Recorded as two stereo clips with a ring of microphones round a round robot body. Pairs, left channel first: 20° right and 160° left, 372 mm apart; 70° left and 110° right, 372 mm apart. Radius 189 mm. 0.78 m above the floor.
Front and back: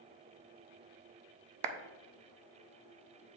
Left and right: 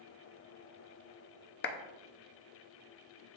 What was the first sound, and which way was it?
A clap, 130° left.